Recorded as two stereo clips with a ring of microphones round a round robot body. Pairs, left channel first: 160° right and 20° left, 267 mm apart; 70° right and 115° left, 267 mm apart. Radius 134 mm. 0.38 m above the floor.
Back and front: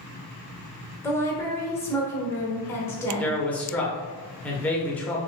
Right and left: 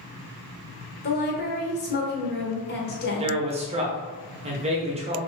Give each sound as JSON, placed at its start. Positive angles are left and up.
{"t": 1.0, "sound": "a woman speaking", "azimuth_deg": -85, "distance_m": 1.0}
{"t": 3.2, "sound": "a man speaking", "azimuth_deg": 125, "distance_m": 0.8}